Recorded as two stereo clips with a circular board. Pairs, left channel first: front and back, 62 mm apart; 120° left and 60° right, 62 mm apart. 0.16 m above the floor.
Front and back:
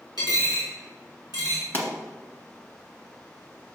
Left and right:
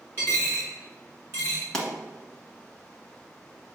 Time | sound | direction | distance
0.2 | a dropped coin | 5° right | 2.5 m
1.7 | a pop | 45° left | 1.5 m